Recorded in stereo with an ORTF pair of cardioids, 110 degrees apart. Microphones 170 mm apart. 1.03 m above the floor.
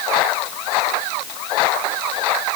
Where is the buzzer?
No buzzer in this recording.